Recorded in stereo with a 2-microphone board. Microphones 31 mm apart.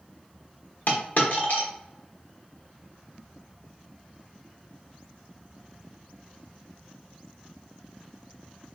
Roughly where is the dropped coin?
Left.